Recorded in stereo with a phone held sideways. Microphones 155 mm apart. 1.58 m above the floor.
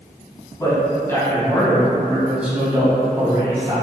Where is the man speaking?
20° left (ahead or behind), 2.0 m; by 3.8 s 30° right (ahead or behind), 2 m.